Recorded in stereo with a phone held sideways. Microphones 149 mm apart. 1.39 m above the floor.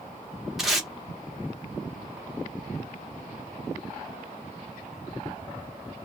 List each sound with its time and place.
0.6 s tape being pulled: centre (ahead or behind), 0.9 m